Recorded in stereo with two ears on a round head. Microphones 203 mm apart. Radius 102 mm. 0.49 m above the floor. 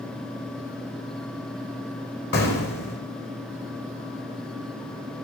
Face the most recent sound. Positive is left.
turn(degrees=50)  # may be behind; listen again after turning